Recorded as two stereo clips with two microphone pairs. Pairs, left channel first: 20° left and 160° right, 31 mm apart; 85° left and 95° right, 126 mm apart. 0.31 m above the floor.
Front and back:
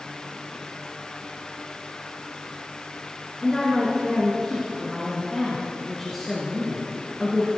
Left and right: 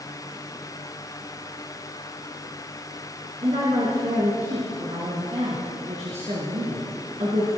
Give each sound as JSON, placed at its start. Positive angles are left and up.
{"t": 3.4, "sound": "a woman speaking", "azimuth_deg": -65, "distance_m": 3.5}